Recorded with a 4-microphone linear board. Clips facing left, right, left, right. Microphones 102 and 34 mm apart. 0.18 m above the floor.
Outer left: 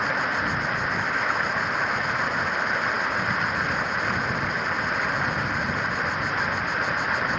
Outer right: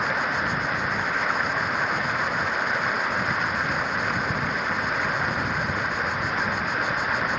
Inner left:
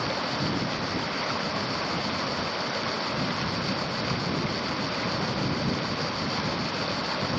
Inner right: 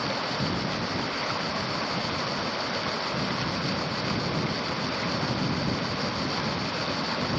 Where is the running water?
Centre (ahead or behind).